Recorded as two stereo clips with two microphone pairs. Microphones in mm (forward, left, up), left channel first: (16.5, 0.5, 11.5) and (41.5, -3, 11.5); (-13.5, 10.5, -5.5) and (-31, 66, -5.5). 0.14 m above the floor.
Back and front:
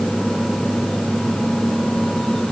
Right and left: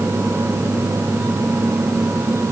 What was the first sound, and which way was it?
Only background noise.